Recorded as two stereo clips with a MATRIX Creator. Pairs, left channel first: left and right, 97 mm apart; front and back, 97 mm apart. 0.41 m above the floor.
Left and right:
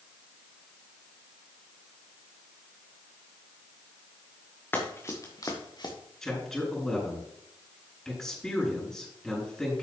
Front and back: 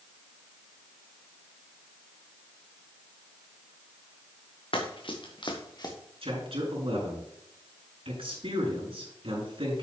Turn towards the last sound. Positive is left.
turn(degrees=175)